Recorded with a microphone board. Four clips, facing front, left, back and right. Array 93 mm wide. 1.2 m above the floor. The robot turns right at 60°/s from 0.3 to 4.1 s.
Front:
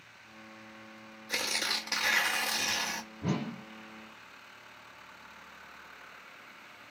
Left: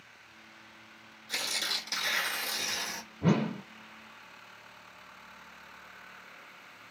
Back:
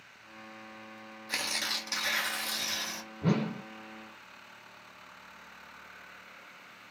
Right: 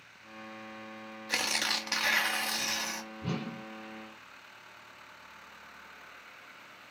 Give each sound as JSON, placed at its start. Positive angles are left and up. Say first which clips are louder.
{"t": 1.3, "sound": "tearing paper", "louder": "right 4 dB, front 2 dB", "azimuth_deg": -105, "distance_m": 0.8}
{"t": 3.2, "sound": "a whoosh", "louder": "left 10 dB, back 5 dB", "azimuth_deg": 105, "distance_m": 0.5}